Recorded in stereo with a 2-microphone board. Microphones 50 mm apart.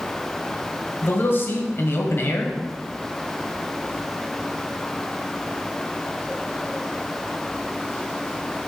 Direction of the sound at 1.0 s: 50° left (ahead or behind).